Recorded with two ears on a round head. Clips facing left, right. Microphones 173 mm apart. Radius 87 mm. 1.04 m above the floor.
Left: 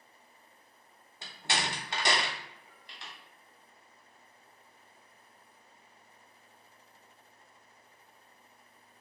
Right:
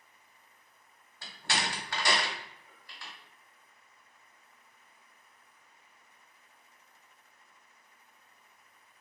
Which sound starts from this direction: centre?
A door slam, at 1.2 s.